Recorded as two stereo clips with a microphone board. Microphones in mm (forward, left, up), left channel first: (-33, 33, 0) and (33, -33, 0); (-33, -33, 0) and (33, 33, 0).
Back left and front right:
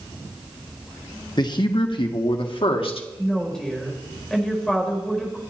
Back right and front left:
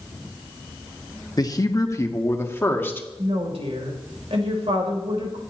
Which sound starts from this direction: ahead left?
A woman speaking, at 3.2 s.